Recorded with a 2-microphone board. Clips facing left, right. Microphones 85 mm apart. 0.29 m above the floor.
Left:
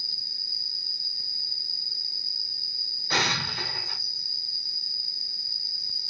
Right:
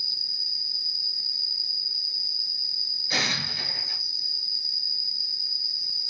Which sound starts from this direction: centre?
An insect, at 0.0 s.